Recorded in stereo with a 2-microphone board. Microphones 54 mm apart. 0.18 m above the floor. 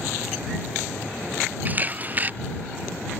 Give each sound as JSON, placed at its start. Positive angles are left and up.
{"t": 1.6, "sound": "a camera shutter", "side_deg": -30}